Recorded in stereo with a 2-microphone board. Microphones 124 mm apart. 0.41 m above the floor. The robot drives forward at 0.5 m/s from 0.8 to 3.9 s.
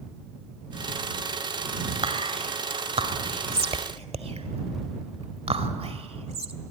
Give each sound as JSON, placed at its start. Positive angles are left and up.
{"t": 2.0, "sound": "whispering", "side_deg": -50, "distance_m": 1.7}